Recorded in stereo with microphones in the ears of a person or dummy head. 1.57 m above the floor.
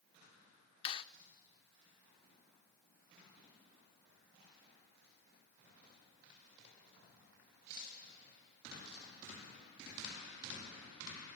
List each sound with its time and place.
0.8 s a clap: 30° left (ahead or behind), 0.9 m